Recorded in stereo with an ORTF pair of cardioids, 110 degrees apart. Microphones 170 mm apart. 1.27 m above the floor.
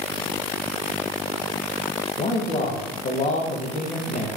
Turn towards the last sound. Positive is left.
turn(degrees=45)